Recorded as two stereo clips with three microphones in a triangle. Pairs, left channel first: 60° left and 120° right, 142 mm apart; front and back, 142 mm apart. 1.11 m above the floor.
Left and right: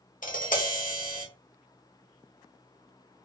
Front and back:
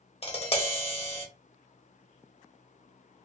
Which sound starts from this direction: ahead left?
Tapping, at 0.2 s.